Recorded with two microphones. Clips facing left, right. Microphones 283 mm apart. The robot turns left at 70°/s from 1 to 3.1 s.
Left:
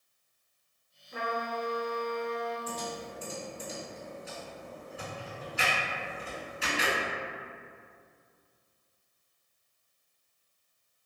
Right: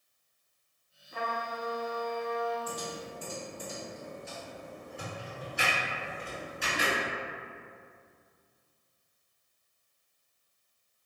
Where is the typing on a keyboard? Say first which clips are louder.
Even; 15° right (ahead or behind), 1.9 m; by 6.9 s 5° left (ahead or behind), 1.9 m.